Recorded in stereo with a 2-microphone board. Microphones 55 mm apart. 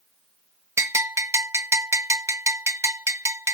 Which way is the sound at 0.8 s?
55° right (ahead or behind).